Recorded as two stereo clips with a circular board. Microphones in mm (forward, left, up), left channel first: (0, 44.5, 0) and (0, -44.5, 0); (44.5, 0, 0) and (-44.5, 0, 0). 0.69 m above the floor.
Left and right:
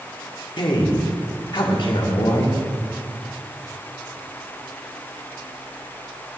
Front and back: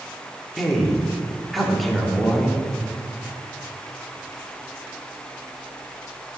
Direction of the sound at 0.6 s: 90° left.